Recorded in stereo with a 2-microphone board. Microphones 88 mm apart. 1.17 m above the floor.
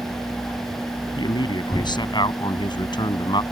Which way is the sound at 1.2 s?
60° left (ahead or behind).